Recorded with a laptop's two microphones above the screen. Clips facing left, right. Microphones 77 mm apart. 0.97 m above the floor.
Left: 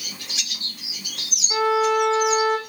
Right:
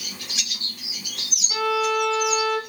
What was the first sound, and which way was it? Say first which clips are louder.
A violin: left 3 dB; 20° left (ahead or behind).